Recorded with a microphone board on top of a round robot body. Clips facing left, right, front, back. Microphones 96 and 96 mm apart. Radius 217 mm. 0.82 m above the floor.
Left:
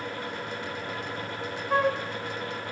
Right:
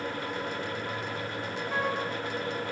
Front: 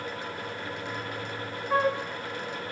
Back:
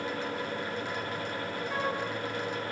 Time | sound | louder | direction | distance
1.7 | a flute | left 6 dB, front 8 dB | 45° left | 0.8 m